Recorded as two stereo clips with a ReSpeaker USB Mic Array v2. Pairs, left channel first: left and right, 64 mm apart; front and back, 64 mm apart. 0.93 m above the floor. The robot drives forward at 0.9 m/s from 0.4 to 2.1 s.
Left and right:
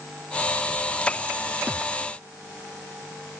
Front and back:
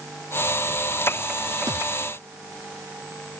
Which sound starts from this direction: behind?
A thud, at 1.7 s.